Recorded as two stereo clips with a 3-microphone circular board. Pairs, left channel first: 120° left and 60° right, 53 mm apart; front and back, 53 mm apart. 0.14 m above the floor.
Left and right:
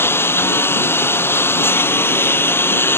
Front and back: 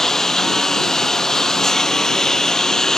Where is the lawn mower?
80° left.